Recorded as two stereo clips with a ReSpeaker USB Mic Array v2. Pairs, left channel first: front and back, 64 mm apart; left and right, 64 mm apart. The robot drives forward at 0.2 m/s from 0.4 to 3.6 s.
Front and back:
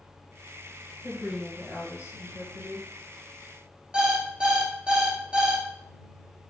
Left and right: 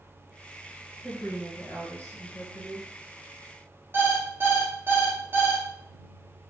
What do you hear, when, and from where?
1.0 s a woman speaking: 135° left, 1.6 m; by 2.9 s 145° left, 1.8 m
3.9 s an alarm clock: 115° right, 0.7 m